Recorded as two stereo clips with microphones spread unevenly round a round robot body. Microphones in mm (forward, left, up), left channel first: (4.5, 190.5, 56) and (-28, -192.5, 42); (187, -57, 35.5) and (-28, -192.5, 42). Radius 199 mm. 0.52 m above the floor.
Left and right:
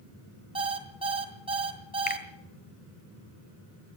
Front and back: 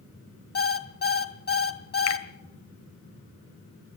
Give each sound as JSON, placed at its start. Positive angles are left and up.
{"t": 0.6, "sound": "an alarm clock", "azimuth_deg": -20, "distance_m": 2.5}
{"t": 2.1, "sound": "a finger snap", "azimuth_deg": 15, "distance_m": 2.0}